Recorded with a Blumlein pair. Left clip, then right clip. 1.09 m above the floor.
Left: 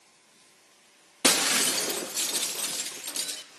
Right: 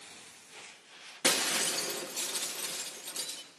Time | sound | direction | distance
1.2 | breaking glass | 25° left | 0.6 m